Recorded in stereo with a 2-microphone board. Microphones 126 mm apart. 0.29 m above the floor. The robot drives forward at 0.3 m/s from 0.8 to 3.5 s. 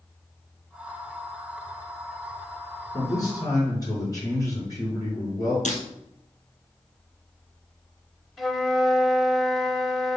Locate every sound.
2.9 s a man speaking: 30° left (ahead or behind), 3.5 m
5.7 s breaking glass: 65° left (ahead or behind), 2.0 m
8.4 s a flute: centre (ahead or behind), 0.6 m